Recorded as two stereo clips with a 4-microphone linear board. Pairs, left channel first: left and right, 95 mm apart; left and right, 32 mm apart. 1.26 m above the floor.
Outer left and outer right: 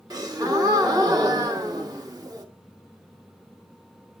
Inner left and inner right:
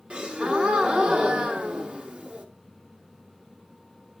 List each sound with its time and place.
0.1 s a gasp: 40° right (ahead or behind), 1.2 m